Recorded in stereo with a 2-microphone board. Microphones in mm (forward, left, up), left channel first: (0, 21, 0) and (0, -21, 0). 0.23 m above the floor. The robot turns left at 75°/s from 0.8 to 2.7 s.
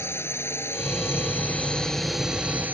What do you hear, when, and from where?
0.0 s a drone: 95° left; by 2.8 s 50° right